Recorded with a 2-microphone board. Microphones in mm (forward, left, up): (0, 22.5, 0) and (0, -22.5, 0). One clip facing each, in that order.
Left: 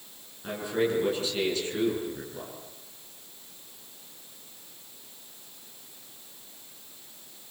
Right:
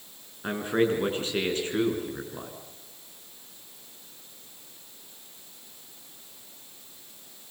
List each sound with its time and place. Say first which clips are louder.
0.4 s a man speaking: right 3 dB; 40° right (ahead or behind), 8.5 m; by 2.5 s 30° right (ahead or behind), 8 m